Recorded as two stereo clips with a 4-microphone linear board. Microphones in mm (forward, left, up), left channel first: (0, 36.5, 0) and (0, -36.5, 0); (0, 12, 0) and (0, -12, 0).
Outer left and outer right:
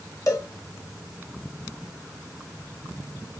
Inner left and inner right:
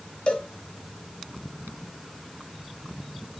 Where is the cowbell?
45° left (ahead or behind), 0.8 m.